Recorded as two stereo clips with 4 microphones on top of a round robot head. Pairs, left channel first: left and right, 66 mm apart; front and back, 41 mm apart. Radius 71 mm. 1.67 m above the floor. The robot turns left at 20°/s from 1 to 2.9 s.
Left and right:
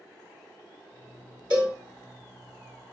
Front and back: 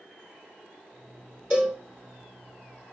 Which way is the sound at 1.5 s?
110° right.